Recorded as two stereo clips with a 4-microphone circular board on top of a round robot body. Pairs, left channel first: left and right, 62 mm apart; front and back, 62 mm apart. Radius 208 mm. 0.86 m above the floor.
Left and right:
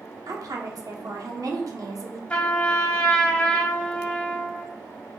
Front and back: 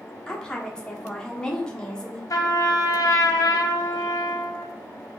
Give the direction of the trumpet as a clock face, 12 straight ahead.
11 o'clock.